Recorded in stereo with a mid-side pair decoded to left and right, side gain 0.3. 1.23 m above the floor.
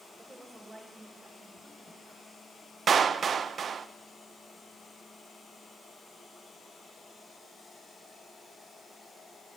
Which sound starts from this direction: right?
A clap, at 2.9 s.